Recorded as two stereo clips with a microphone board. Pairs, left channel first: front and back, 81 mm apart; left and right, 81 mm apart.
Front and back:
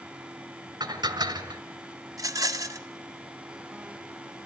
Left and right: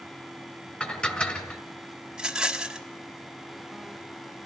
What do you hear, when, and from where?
0.8 s dishes clattering: 165° left, 1.9 m
2.1 s a rattle: 170° right, 1.1 m